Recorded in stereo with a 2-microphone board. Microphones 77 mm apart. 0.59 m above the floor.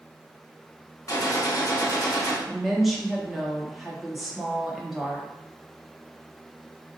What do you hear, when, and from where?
1.1 s a gunshot: 45° left (ahead or behind), 0.9 m
2.5 s a woman speaking: 5° right (ahead or behind), 0.8 m